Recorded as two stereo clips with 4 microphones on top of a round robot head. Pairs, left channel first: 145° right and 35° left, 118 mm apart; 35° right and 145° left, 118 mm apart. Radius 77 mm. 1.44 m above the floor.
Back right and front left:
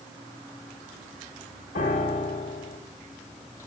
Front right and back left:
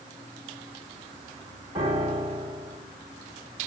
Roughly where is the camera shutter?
No camera shutter in this recording.